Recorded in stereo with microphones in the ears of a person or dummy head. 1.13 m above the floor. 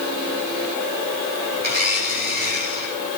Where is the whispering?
No whispering in this recording.